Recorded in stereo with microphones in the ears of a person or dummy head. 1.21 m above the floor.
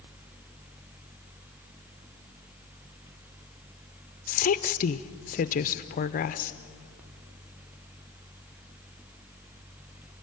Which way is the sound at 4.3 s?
40° left (ahead or behind).